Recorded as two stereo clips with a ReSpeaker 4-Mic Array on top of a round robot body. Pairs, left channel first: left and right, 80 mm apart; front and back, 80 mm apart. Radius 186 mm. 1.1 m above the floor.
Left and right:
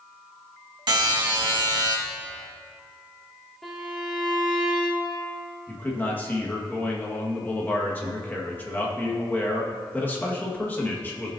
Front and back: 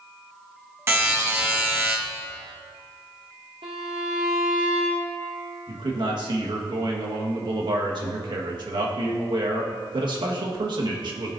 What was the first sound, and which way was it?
A buzzer, 120° right.